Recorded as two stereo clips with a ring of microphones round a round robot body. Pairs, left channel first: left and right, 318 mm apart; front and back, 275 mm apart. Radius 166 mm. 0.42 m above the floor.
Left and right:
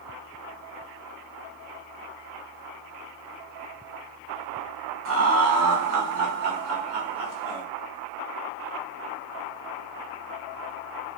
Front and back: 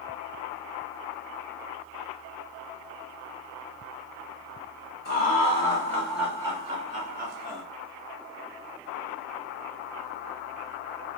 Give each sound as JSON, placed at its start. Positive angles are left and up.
{"t": 5.0, "sound": "laughter", "azimuth_deg": -50, "distance_m": 1.4}